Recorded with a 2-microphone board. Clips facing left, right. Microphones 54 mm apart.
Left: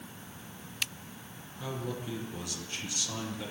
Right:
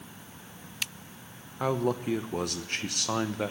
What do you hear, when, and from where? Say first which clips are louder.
1.6 s a man speaking: right 10 dB; 55° right (ahead or behind), 0.9 m